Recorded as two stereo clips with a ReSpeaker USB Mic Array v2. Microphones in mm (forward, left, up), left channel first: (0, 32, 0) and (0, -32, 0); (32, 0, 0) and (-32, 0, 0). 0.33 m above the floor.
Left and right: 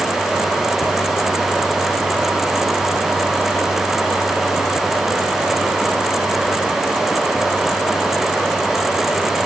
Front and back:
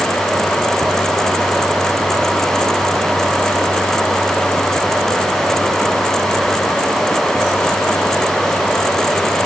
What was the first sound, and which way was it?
Only background noise.